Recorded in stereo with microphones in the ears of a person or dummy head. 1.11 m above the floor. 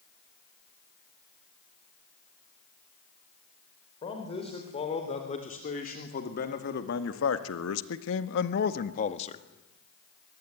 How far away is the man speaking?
About 4.5 m.